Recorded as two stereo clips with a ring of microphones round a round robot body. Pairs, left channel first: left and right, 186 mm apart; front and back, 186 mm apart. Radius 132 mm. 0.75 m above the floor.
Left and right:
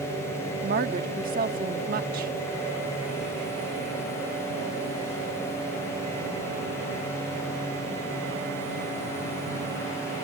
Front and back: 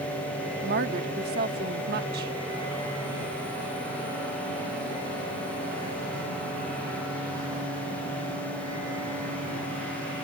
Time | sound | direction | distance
0.6 | a woman speaking | 140° right | ?